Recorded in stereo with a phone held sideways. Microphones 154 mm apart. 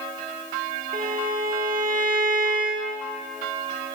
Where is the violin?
65° right (ahead or behind), 1.4 m.